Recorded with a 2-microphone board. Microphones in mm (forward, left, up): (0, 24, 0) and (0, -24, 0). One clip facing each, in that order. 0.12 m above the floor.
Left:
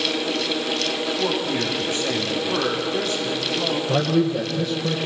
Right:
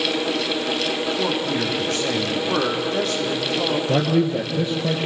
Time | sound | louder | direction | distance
1.2 | a man speaking | right 1 dB | 75° right (ahead or behind) | 7.5 m
3.9 | a man speaking | even | 30° right (ahead or behind) | 3 m